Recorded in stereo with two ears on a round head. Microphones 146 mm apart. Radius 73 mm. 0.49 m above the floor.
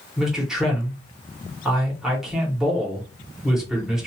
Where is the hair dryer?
I don't hear a hair dryer.